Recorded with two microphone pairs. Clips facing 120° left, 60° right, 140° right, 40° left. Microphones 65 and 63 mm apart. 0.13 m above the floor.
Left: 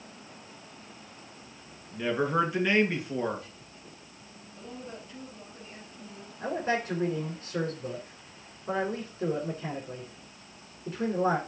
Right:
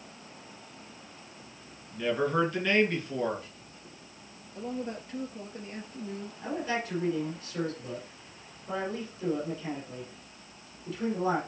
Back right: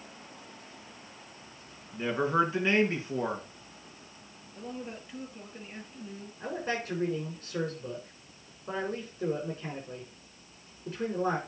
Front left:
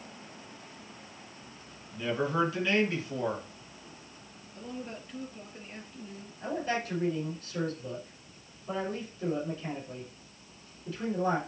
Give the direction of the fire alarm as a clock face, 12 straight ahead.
I don't hear a fire alarm.